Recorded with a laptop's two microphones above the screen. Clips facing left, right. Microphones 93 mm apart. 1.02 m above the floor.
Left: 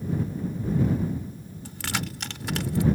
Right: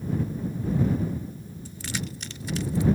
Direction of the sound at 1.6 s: 85° left.